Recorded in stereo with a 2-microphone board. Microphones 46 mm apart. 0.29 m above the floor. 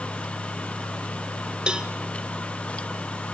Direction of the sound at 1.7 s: 20° right (ahead or behind).